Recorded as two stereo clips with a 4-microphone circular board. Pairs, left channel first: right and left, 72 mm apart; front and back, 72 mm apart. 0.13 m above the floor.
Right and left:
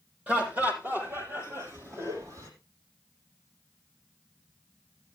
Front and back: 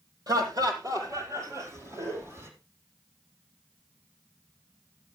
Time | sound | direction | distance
0.3 | laughter | 160° left | 4.5 m